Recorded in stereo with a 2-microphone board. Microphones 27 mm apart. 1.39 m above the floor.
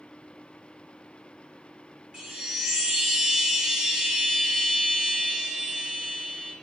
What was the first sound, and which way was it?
A chime, 40° right (ahead or behind).